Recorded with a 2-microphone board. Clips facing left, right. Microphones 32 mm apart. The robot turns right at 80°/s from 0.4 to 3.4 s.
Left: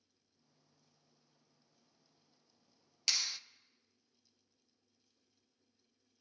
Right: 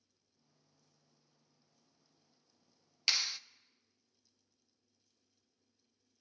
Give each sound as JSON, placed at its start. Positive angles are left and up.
{"t": 3.1, "sound": "a clap", "side_deg": -30, "distance_m": 0.6}